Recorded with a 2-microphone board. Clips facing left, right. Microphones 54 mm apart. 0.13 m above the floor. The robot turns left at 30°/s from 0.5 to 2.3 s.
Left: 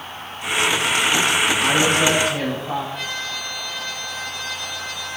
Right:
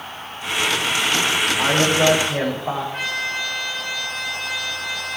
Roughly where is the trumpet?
Right.